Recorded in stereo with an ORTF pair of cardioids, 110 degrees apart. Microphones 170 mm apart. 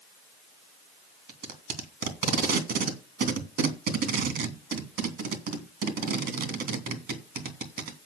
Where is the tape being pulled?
65° right, 3 m.